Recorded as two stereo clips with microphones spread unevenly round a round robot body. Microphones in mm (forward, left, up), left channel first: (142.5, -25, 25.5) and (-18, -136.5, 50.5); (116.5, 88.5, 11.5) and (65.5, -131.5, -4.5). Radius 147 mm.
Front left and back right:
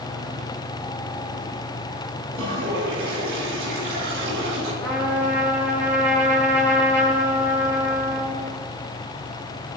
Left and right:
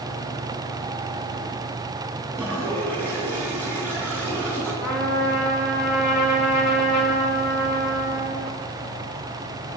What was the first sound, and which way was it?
A toilet flushing, 160° left.